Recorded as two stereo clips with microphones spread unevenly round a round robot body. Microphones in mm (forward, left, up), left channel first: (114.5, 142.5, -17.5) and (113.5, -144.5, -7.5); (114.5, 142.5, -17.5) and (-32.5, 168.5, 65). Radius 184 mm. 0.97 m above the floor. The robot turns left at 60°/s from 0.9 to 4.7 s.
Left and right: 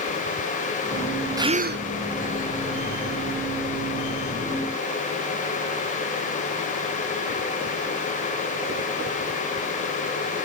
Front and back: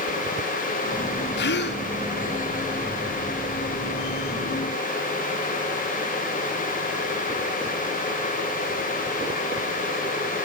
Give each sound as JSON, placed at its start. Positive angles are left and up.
{"t": 1.4, "sound": "a gasp", "azimuth_deg": -10, "distance_m": 0.6}